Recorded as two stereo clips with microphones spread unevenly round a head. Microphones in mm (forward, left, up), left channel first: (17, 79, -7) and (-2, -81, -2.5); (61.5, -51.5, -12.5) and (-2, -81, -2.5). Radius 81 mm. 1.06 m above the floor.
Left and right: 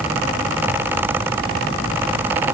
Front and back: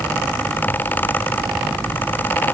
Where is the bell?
I don't hear a bell.